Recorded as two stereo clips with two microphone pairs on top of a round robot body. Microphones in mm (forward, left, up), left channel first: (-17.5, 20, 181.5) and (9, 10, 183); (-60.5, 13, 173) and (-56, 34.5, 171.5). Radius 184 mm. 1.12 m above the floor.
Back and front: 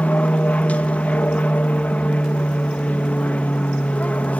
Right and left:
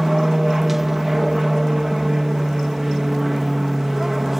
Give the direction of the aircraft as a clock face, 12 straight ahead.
7 o'clock.